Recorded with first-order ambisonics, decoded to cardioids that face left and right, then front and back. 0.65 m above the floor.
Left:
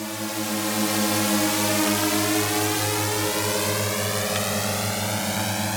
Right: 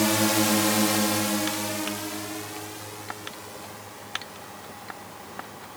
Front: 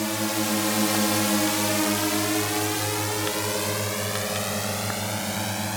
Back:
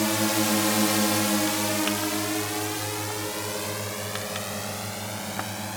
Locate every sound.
0.0 s a drone: 110° right; by 5.8 s 75° left